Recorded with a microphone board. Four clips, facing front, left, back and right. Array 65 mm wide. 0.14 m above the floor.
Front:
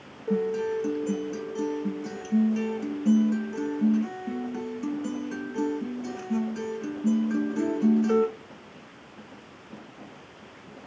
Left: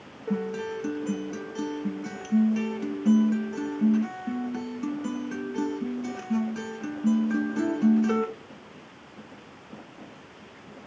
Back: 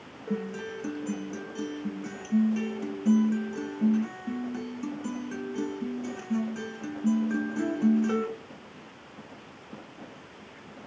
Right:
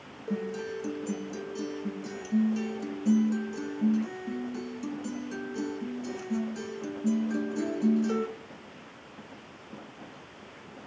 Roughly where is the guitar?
Left.